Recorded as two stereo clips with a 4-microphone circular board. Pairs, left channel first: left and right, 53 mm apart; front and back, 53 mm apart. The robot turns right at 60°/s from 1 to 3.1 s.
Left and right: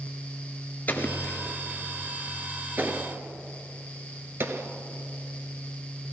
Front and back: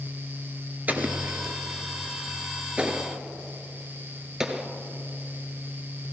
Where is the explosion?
130° left, 1.0 m; by 4.7 s 105° right, 1.0 m.